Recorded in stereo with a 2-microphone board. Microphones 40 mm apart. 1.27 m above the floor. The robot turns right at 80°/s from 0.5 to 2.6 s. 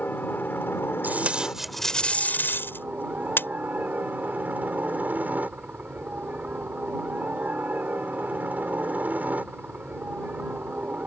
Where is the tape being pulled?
55° right; by 3.5 s 70° left.